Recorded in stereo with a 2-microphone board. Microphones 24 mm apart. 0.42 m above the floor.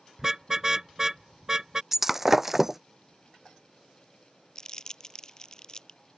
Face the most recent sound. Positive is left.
turn(degrees=25)  # may be behind; listen again after turning